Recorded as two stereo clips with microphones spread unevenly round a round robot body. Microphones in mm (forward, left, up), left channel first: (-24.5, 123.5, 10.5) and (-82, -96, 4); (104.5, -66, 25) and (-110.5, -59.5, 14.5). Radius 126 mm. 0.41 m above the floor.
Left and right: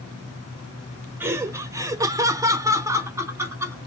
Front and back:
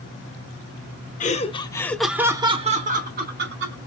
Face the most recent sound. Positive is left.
turn(degrees=180)